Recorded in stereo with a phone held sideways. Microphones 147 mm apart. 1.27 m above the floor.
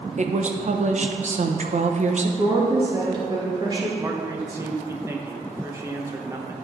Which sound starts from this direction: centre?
A man speaking, at 4.0 s.